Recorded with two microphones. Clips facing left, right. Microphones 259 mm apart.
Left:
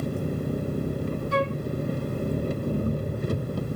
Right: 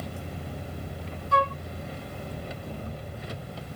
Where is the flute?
20° left (ahead or behind).